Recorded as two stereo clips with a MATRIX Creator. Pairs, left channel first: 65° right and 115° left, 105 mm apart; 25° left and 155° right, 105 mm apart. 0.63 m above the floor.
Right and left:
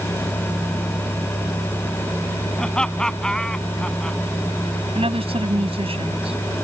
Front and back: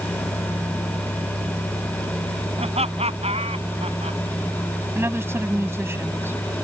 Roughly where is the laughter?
Behind right.